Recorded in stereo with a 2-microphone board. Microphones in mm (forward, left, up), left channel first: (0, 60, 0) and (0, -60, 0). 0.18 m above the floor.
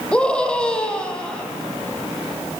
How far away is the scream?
About 6 m.